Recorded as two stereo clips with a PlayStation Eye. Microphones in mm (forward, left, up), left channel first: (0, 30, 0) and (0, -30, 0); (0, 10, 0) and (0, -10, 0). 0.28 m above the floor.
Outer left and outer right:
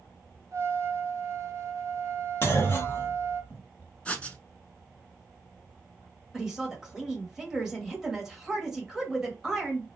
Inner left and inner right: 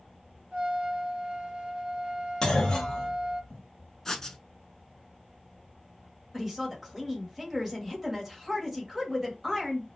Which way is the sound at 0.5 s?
60° right (ahead or behind).